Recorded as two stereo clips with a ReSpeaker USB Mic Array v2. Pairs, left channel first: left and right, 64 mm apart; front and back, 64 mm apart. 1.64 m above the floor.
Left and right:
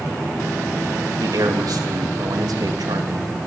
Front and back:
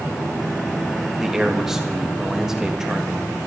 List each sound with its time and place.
1.2 s a man speaking: 100° right, 3 m